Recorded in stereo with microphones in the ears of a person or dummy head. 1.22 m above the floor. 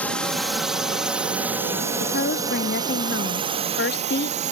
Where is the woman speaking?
50° left (ahead or behind).